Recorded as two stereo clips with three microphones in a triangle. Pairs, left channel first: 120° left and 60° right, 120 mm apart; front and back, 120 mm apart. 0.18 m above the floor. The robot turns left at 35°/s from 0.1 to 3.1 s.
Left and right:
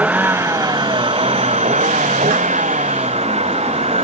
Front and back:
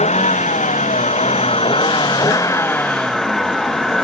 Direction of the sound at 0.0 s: 20° left.